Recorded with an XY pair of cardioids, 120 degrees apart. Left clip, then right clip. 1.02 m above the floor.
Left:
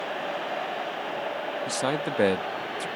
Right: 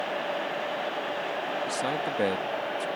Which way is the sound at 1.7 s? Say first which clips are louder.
Left 1 dB; 35° left.